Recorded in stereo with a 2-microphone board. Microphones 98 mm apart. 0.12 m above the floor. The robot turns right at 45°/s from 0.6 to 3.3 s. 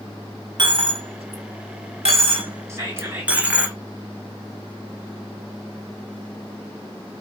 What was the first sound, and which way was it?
A dropped coin, 45° right (ahead or behind).